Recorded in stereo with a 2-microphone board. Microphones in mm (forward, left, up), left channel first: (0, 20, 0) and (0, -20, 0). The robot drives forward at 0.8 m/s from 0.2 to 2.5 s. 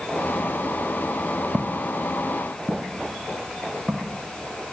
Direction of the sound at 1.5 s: 15° right (ahead or behind).